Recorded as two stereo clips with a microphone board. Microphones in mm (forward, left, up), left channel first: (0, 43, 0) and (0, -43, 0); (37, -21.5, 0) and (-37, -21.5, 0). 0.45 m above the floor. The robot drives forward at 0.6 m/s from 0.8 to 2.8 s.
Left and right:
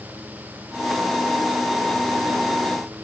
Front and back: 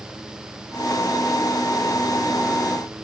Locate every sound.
Only background noise.